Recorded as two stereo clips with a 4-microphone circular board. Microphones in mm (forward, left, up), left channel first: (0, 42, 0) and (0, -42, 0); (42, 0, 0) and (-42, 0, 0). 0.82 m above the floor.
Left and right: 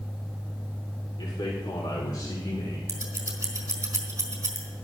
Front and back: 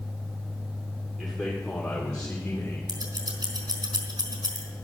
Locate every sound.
1.2 s a man speaking: 95° left, 2.5 m; by 2.8 s 65° left, 2.5 m
2.9 s scissors: 150° right, 3 m